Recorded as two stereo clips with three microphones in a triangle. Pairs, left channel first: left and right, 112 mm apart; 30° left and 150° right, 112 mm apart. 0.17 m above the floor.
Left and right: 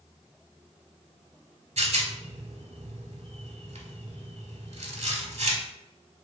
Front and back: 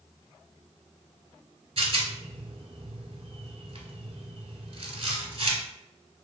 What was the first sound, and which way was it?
A rattle, 110° right.